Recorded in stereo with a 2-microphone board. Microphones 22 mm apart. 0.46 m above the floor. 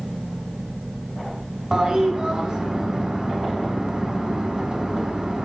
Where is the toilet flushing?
40° right (ahead or behind), 2.5 m.